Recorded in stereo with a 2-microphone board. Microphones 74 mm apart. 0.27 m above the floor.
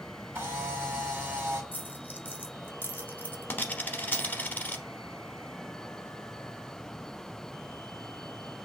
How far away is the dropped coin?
About 0.7 m.